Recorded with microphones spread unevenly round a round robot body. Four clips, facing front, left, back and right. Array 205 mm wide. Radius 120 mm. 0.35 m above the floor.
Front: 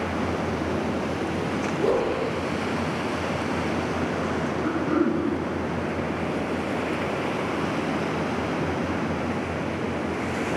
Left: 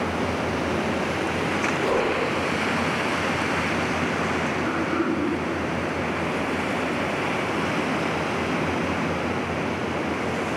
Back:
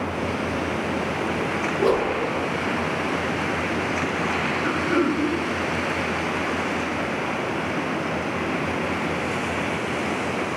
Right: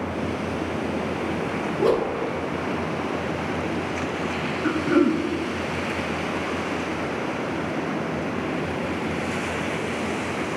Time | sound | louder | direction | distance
1.8 | a whoosh | right 4 dB, back 2 dB | 135° right | 3 m
4.6 | throat clearing | right 9 dB, back 1 dB | 80° right | 0.7 m